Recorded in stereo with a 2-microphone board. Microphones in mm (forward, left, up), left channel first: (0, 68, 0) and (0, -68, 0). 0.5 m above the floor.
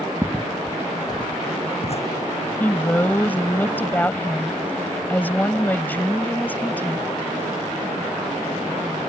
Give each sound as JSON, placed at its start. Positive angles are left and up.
{"t": 0.2, "sound": "footsteps", "side_deg": -15}
{"t": 2.6, "sound": "a woman speaking", "side_deg": 15}